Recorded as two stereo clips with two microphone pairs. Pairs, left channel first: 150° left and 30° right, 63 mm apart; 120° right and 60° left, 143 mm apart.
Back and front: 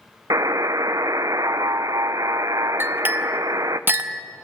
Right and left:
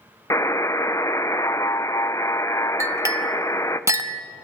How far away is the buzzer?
About 0.5 m.